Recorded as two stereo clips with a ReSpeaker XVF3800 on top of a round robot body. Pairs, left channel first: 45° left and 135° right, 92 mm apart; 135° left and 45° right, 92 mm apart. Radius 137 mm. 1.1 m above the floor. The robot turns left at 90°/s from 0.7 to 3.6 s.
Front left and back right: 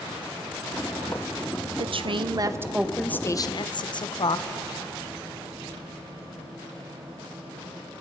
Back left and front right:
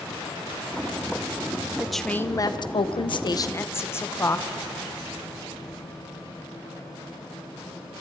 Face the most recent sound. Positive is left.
turn(degrees=75)